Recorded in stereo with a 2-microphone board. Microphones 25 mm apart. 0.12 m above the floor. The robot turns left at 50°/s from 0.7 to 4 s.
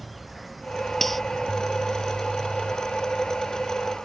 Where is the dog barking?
No dog barking in this recording.